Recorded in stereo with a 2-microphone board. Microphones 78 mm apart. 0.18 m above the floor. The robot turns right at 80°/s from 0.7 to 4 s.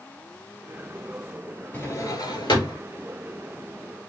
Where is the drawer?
25° left (ahead or behind), 0.7 m; by 2.8 s 65° left (ahead or behind), 0.7 m.